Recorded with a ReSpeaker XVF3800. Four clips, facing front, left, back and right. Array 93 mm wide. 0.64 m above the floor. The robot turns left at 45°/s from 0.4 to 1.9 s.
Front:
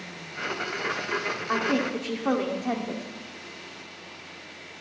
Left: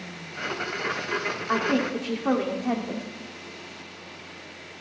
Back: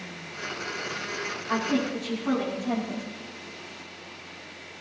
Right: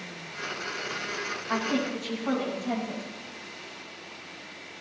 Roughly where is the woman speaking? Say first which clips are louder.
Left 4 dB, even; ahead left.